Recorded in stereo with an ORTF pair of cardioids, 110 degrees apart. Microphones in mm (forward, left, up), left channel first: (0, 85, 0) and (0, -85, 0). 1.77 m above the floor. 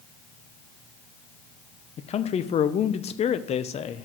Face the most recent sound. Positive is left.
turn(degrees=40)